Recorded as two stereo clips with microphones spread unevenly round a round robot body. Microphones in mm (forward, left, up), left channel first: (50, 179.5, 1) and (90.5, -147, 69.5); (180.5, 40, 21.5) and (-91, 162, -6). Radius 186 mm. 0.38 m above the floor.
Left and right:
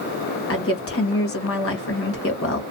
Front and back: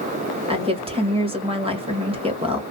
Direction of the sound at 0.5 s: 95° left.